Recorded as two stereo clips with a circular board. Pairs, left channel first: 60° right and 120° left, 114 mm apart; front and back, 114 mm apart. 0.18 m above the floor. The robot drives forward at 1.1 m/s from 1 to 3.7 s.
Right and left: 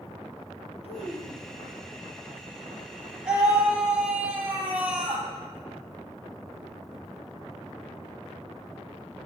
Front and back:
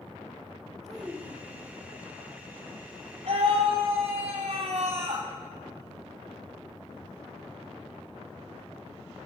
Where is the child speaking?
95° right, 3.5 m; by 1.8 s 105° right, 3.5 m.